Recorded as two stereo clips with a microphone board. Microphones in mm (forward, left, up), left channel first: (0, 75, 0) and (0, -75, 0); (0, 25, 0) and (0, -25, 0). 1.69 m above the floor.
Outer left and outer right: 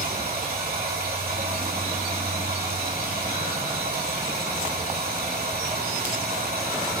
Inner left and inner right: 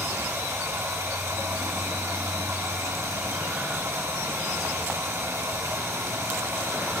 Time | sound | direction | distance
0.0 | running water | 80° right | 3 m